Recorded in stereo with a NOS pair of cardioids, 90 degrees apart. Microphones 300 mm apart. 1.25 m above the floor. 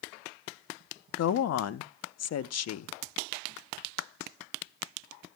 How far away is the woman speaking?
About 0.8 m.